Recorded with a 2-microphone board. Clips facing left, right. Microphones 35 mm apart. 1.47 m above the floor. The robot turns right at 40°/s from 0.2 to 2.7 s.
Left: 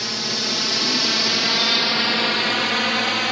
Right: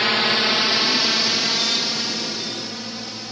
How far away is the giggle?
I don't hear a giggle.